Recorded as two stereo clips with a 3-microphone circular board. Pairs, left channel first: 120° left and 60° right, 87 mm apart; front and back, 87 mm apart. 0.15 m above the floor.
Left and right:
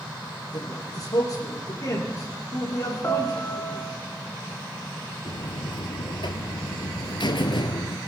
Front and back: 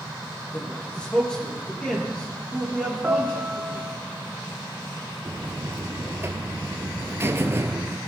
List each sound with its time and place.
0.5 s a man speaking: 80° left, 5 m
3.0 s a piano: 125° left, 0.8 m
5.2 s a buzzer: 120° left, 0.7 m